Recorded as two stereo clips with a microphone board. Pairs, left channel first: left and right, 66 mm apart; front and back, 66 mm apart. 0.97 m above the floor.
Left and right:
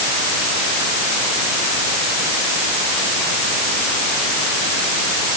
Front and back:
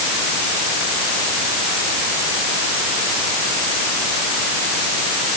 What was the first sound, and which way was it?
Only background noise.